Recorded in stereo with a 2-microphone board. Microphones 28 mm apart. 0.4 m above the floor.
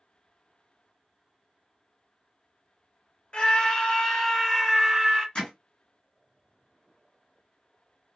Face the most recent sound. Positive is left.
turn(degrees=35)  # may be behind; listen again after turning